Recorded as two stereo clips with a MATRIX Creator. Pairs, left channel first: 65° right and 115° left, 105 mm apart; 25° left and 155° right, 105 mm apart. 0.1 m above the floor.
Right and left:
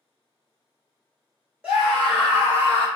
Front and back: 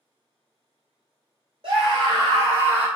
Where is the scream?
175° right, 1.7 m; by 2.9 s 140° left, 1.1 m.